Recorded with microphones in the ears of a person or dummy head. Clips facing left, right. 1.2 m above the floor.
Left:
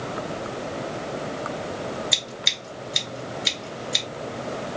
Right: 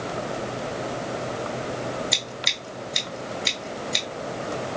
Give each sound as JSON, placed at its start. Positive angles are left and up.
{"t": 2.1, "sound": "scissors", "side_deg": 0, "distance_m": 1.7}